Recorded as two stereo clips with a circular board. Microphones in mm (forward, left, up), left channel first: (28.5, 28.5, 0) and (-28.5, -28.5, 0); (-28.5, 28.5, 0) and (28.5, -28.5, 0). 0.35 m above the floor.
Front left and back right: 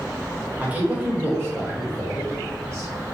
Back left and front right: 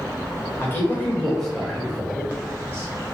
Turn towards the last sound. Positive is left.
turn(degrees=-100)